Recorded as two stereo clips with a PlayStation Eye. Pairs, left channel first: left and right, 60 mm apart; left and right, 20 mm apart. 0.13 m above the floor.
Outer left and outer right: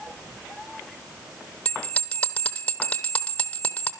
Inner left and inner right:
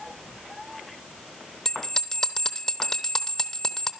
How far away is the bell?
About 0.9 m.